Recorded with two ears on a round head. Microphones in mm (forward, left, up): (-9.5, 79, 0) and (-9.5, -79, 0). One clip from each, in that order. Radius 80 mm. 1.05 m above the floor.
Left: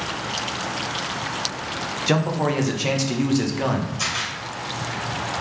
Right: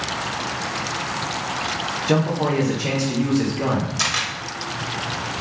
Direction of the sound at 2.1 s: 35° left (ahead or behind).